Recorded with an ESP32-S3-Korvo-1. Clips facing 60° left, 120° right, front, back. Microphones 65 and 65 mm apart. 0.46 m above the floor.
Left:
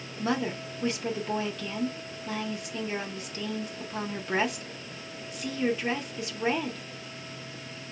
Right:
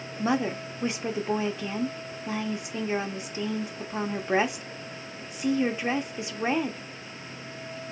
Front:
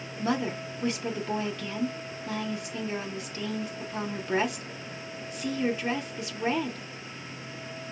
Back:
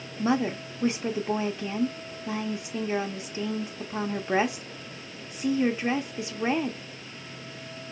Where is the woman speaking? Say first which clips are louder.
Right 3 dB, back 3 dB; 155° right, 0.7 m.